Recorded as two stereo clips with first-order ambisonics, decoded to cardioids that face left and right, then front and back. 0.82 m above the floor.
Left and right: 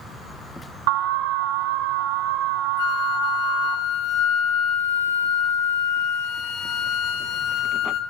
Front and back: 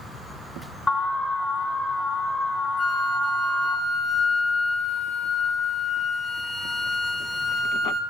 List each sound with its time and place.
0.9 s an alarm: 75° right, 0.8 m
2.8 s a flute: 80° left, 0.8 m